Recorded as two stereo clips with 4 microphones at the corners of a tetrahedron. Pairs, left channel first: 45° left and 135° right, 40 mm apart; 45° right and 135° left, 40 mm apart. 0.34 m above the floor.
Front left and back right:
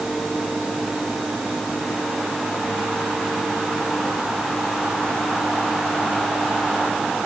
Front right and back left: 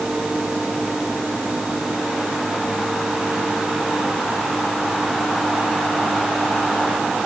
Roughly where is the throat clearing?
I don't hear throat clearing.